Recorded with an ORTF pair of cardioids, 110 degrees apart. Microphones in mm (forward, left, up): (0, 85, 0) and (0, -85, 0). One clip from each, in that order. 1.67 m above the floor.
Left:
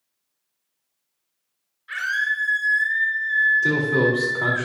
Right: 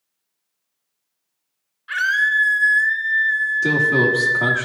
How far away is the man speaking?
About 2.5 m.